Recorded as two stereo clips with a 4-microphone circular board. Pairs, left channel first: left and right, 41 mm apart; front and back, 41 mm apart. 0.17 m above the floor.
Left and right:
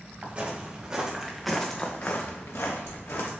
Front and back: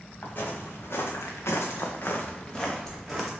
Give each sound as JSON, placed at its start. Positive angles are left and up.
{"t": 0.2, "sound": "footsteps", "azimuth_deg": -35, "distance_m": 2.0}